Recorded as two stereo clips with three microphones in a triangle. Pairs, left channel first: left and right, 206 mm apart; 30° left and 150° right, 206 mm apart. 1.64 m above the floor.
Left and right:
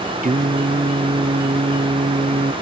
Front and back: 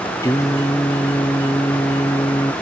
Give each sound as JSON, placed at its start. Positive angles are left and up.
{"t": 0.2, "sound": "singing", "azimuth_deg": -45}